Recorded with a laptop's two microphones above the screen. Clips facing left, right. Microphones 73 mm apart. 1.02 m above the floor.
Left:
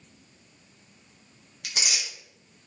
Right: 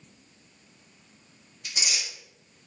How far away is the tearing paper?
About 1.6 m.